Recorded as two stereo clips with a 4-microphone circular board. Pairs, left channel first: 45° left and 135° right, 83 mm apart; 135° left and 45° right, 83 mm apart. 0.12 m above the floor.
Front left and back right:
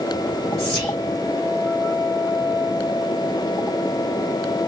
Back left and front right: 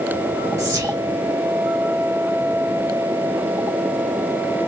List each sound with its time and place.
0.6 s whispering: 40° right, 1.2 m